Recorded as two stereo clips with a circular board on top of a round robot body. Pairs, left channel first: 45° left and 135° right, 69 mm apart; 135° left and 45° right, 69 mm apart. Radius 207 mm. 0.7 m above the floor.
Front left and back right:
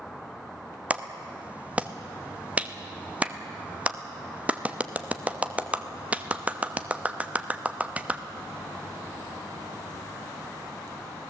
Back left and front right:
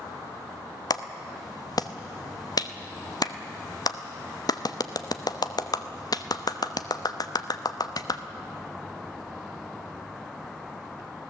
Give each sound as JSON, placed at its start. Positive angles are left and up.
{"t": 0.9, "sound": "a clap", "azimuth_deg": 155, "distance_m": 1.1}